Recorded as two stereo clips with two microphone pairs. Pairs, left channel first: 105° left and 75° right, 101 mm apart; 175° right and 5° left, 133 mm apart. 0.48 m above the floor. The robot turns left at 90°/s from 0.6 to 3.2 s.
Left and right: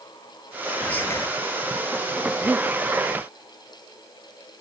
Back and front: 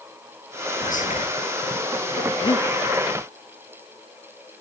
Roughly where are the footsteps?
No footsteps in this recording.